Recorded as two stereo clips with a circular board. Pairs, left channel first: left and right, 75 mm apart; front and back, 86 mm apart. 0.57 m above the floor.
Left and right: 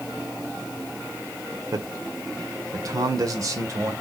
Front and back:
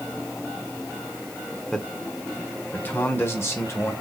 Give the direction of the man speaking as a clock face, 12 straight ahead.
3 o'clock.